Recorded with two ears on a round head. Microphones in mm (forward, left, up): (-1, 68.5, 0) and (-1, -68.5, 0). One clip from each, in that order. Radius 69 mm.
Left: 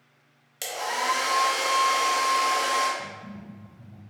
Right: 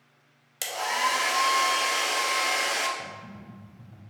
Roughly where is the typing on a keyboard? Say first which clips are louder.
Left 1 dB; right.